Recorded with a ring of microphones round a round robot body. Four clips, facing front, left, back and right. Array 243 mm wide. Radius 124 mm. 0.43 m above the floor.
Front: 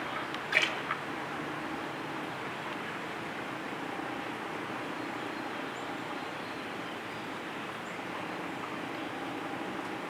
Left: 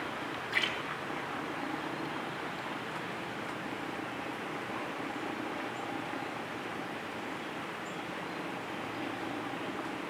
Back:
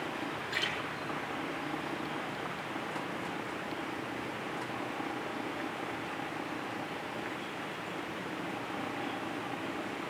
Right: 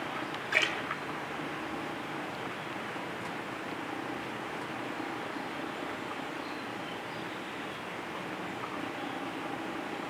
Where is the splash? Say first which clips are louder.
Right 4 dB, front 8 dB; 50° right, 2 m.